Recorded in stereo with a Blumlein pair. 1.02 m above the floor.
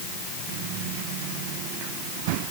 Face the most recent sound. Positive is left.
No sound to turn to.